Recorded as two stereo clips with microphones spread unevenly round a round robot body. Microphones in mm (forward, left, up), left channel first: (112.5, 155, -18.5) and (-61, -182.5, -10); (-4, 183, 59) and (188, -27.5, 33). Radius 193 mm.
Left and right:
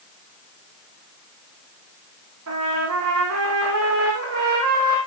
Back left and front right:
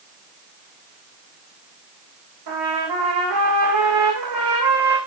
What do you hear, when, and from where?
2.5 s a trumpet: 65° right, 5 m